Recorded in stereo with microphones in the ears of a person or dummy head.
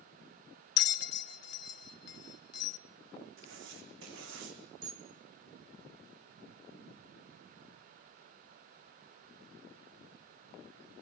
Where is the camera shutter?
70° right (ahead or behind), 4 m.